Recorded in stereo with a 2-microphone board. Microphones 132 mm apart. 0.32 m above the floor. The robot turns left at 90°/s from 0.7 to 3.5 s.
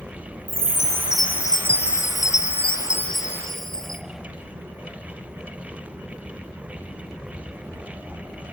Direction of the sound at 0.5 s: 135° right.